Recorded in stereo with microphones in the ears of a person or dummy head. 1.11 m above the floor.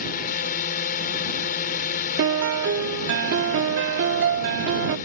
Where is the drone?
45° left (ahead or behind).